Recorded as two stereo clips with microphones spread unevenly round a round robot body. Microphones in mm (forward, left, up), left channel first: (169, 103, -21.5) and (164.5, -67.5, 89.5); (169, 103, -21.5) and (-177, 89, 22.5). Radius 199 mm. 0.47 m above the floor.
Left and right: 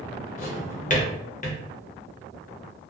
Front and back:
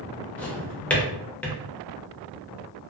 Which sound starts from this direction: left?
A drawer, at 0.4 s.